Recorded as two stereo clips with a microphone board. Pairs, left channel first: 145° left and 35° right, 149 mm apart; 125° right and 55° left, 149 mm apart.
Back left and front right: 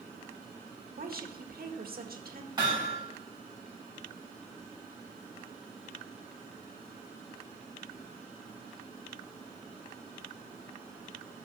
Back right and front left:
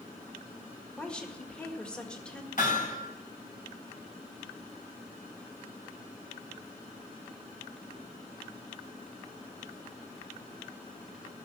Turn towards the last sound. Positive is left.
turn(degrees=-95)